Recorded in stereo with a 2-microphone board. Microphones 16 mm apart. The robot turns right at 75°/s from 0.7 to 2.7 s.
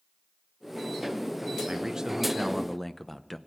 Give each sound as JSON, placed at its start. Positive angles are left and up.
{"t": 1.7, "sound": "a man speaking", "azimuth_deg": -60, "distance_m": 0.7}